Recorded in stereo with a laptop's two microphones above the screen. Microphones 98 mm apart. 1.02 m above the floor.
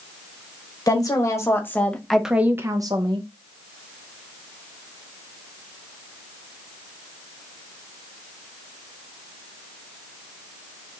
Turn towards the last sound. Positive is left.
turn(degrees=-55)  # may be behind; listen again after turning